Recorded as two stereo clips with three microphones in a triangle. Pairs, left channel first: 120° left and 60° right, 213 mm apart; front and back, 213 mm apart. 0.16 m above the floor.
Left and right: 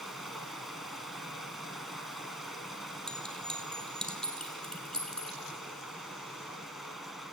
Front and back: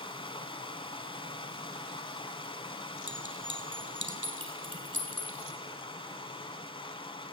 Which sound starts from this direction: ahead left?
Running water, at 0.0 s.